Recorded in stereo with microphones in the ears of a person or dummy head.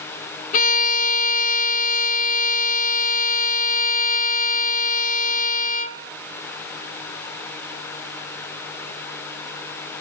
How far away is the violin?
About 1.2 m.